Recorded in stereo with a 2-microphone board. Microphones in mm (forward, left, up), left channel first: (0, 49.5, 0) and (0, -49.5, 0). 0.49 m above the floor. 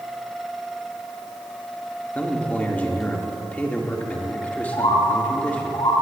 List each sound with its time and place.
2.1 s a man speaking: 15° left (ahead or behind), 1.4 m
4.7 s a bird: 80° left, 5.5 m